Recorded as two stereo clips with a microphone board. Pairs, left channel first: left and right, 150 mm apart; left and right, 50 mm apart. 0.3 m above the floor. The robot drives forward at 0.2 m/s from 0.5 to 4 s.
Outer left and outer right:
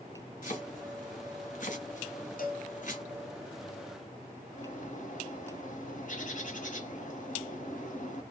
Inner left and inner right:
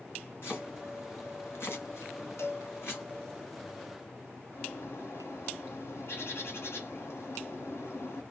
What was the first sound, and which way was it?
Chopping, 60° left (ahead or behind).